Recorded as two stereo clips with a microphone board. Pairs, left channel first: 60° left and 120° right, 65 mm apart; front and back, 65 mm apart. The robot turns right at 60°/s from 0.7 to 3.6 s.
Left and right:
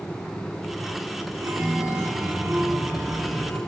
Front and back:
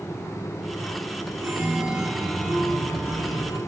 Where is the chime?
145° right, 4.5 m; by 3.6 s 15° right, 4.5 m.